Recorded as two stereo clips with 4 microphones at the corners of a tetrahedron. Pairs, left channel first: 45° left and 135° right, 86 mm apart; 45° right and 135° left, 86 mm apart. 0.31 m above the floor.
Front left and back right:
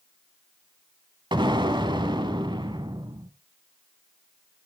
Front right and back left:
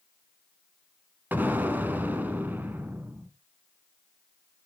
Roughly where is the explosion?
Behind right.